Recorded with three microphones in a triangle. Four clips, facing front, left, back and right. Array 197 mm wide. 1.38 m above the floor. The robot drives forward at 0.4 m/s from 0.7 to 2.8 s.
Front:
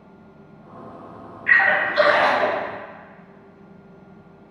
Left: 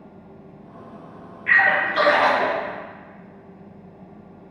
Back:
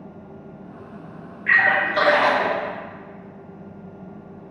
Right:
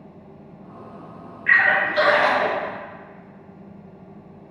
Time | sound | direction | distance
1.5 | a splash | 160° left | 1.2 m